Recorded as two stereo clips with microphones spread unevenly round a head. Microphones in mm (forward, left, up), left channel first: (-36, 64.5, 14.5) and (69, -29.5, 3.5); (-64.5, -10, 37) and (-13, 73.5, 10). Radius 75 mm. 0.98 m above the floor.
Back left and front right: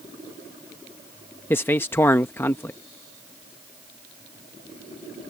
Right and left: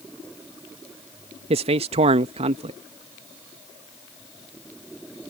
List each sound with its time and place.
1.5 s a man speaking: 60° left